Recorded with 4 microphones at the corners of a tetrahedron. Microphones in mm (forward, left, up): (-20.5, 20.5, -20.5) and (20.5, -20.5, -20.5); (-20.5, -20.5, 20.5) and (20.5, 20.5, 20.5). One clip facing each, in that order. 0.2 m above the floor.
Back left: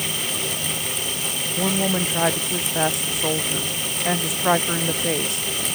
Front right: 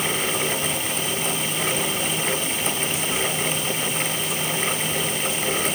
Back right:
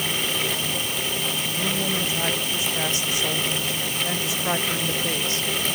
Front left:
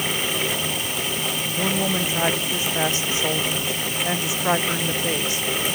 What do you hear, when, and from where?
1.6 s a woman speaking: 105° left; by 5.7 s 120° left